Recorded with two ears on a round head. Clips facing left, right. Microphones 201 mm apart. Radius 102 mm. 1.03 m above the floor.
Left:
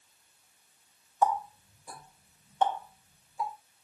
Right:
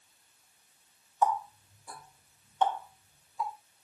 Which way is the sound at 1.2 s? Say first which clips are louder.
Left 1 dB; 10° left (ahead or behind).